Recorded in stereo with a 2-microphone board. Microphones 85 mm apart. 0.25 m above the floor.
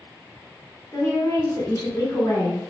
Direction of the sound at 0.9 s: 30° left (ahead or behind).